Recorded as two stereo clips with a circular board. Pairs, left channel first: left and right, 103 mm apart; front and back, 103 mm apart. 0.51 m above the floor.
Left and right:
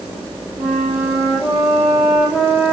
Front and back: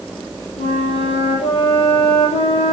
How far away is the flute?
About 7.5 m.